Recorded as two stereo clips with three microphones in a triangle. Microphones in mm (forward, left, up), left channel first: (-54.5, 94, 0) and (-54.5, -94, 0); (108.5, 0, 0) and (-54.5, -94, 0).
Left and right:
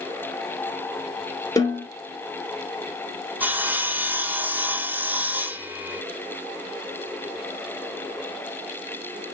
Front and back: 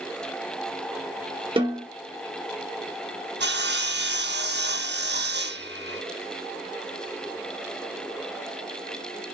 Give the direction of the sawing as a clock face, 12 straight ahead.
6 o'clock.